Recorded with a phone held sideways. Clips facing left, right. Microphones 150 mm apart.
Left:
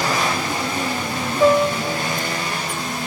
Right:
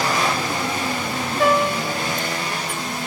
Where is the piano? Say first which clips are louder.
Left 4 dB; 80° right, 4.5 m.